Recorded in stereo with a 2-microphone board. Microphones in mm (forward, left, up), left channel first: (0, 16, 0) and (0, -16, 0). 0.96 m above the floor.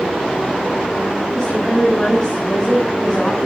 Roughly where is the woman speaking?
Centre.